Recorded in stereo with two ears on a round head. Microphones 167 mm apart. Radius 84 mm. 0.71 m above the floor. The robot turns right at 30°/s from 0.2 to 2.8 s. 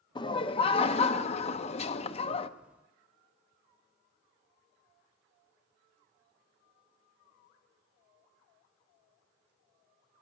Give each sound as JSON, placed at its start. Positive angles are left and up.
{"t": 0.1, "sound": "laughter", "azimuth_deg": 50, "distance_m": 0.6}